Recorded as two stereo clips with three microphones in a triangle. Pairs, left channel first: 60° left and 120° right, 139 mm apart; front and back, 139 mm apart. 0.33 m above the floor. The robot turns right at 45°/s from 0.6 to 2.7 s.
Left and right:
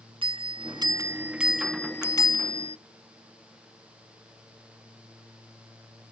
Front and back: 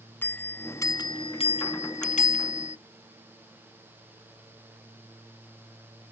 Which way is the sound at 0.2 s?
75° right.